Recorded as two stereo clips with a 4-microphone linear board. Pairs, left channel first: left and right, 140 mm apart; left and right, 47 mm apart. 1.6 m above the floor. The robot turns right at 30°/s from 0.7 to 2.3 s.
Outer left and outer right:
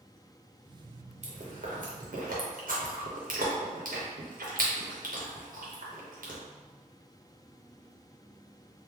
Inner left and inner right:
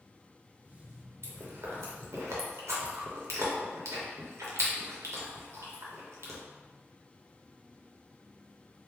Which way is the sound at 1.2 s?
60° right (ahead or behind).